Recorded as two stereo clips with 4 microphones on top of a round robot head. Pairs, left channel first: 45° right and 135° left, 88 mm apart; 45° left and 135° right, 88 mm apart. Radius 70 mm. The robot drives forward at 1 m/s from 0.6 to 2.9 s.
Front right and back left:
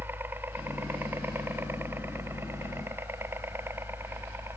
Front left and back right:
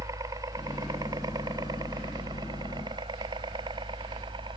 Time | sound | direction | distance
0.0 | a helicopter | 170° right | ?